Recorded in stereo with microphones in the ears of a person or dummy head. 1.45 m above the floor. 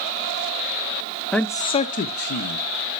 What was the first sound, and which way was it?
A man speaking, 5° left (ahead or behind).